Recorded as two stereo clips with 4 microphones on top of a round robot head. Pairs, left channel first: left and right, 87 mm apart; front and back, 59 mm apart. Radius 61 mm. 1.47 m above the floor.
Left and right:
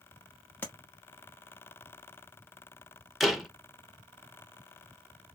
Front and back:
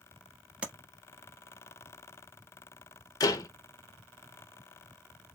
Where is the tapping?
140° left, 0.9 m.